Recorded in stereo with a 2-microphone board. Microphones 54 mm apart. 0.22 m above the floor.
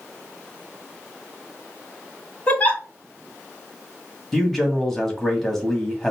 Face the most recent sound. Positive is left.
turn(degrees=5)  # may be behind; listen again after turning